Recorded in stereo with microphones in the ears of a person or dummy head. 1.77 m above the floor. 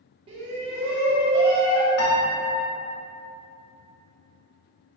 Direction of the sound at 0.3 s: 30° right (ahead or behind).